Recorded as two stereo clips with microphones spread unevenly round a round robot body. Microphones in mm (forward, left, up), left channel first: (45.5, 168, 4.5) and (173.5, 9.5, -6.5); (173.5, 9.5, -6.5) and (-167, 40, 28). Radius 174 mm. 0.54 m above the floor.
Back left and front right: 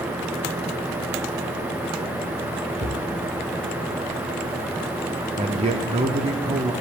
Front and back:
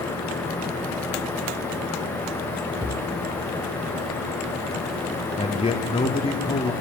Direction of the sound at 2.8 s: 70° right.